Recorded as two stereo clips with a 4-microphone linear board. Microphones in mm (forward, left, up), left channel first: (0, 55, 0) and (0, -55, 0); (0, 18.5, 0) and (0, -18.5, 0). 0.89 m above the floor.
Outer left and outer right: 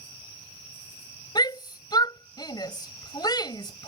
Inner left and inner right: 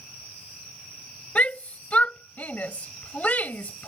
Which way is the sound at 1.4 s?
40° left (ahead or behind).